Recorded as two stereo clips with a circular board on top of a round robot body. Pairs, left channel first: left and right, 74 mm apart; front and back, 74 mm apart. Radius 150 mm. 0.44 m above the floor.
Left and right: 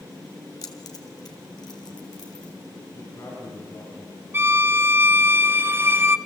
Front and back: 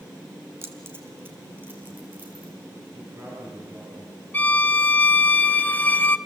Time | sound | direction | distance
0.6 | keys jangling | 125° left | 2 m
2.9 | a man speaking | 125° left | 9.5 m
4.3 | a violin | 50° right | 1.2 m